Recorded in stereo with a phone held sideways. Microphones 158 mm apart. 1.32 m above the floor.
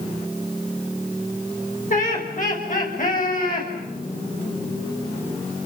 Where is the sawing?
No sawing in this recording.